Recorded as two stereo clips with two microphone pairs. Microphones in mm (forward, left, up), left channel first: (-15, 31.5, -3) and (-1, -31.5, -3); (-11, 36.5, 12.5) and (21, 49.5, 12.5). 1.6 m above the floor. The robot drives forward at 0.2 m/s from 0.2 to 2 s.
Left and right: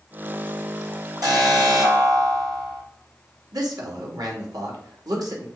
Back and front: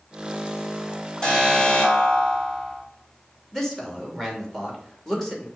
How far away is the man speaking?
About 2.5 m.